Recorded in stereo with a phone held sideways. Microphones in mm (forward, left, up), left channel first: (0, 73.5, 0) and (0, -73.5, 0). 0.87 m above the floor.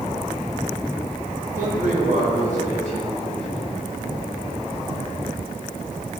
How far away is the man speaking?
About 4 m.